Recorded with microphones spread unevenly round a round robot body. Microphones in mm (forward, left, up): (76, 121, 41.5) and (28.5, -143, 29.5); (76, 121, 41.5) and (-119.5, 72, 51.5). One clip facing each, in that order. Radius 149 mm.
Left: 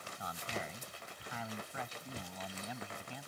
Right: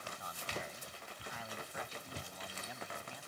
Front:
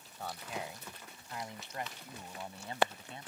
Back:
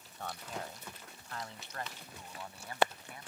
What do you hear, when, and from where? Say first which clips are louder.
0.2 s a man speaking: left 4 dB, front 1 dB; 100° left; by 3.3 s 80° left